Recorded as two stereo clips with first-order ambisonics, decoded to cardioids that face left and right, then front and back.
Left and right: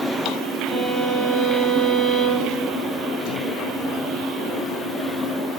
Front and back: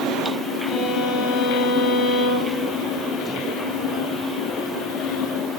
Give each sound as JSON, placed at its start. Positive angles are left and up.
{"t": 0.7, "sound": "a violin", "azimuth_deg": -20, "distance_m": 3.5}